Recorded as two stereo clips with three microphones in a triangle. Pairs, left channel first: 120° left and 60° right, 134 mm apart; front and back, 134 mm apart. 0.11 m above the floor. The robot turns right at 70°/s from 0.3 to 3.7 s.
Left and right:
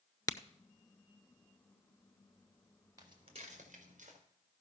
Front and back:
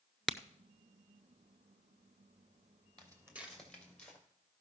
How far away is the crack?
About 0.6 m.